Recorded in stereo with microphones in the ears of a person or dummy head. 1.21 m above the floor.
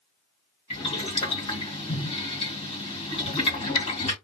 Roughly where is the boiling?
Left.